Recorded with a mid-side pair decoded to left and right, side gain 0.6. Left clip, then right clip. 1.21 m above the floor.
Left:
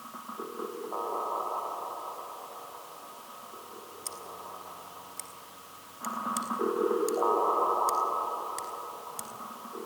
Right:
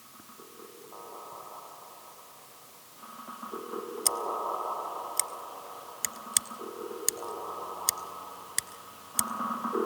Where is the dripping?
I don't hear dripping.